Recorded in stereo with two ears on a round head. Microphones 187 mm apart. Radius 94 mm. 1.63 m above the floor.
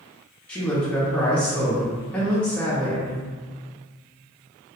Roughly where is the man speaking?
Centre.